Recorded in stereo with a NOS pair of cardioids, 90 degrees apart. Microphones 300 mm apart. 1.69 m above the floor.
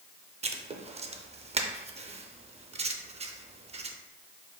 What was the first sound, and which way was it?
Writing, 20° right.